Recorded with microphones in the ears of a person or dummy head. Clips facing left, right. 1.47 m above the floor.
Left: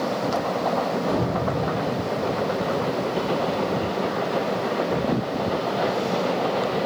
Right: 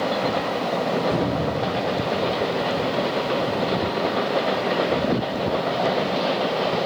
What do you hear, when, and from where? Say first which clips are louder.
1.1 s a cupboard door: right 1 dB; 40° left (ahead or behind), 1.6 m